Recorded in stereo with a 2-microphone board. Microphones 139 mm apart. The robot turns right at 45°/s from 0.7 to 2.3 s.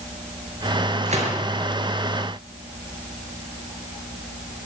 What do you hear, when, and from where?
1.1 s a gunshot: 65° right (ahead or behind), 5 m; by 1.3 s 50° right (ahead or behind), 5 m